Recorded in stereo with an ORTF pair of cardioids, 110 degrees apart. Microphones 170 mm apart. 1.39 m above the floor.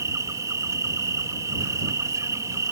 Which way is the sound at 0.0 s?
20° right.